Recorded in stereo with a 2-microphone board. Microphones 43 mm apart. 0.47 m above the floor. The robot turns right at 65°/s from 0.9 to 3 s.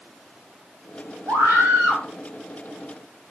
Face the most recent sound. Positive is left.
turn(degrees=0)